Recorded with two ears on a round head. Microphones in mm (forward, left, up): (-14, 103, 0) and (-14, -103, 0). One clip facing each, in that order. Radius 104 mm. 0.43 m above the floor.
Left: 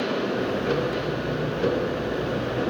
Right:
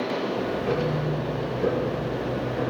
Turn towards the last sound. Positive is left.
turn(degrees=5)  # may be behind; listen again after turning